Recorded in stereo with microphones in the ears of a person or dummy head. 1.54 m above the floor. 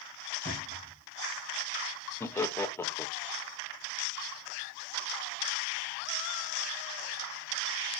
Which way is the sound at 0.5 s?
30° left (ahead or behind).